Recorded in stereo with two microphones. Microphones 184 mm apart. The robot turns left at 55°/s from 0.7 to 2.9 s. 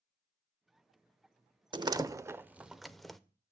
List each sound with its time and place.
1.7 s a door slam: 25° right (ahead or behind), 0.5 m; by 3.2 s centre (ahead or behind), 0.5 m